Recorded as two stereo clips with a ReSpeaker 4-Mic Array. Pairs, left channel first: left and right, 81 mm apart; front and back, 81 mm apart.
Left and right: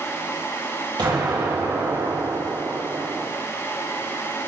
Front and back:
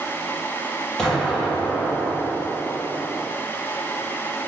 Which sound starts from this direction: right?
An explosion, at 1.0 s.